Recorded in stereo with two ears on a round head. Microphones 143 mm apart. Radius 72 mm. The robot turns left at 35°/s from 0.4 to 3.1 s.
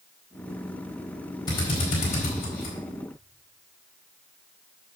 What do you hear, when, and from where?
1.5 s a drill: 30° left (ahead or behind), 4.5 m; by 2.8 s 75° left (ahead or behind), 4.5 m